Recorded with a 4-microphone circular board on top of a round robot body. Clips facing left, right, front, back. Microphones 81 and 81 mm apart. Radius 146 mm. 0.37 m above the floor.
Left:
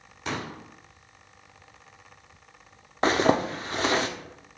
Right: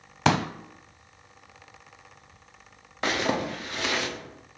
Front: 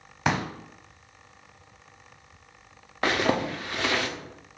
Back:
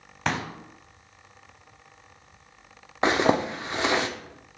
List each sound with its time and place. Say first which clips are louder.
0.2 s a pop: right 9 dB, front 2 dB; 85° right, 0.6 m
3.0 s a zipper: left 5 dB, back 3 dB; 125° left, 1.2 m